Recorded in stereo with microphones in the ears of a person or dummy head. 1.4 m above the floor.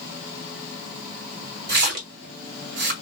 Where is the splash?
70° right (ahead or behind), 1.5 m.